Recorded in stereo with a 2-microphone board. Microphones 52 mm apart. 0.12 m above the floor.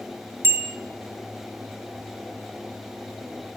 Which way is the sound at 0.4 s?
45° right (ahead or behind).